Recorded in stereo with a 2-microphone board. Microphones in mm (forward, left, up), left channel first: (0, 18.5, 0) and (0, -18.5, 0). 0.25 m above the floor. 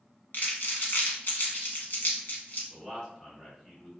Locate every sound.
0.3 s crumpling: 60° left (ahead or behind), 1.0 m
2.7 s a man speaking: 20° left (ahead or behind), 1.2 m